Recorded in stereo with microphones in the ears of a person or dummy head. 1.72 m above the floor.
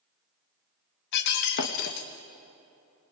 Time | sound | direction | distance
1.1 | breaking glass | 55° left (ahead or behind) | 1.4 m